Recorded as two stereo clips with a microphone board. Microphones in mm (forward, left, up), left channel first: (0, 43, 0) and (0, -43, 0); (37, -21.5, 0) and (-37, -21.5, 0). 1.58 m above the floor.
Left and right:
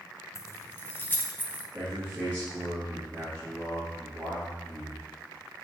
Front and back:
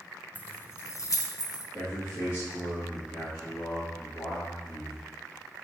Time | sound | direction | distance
0.3 | keys jangling | 60° left | 0.6 m
1.7 | a man speaking | 30° right | 2.5 m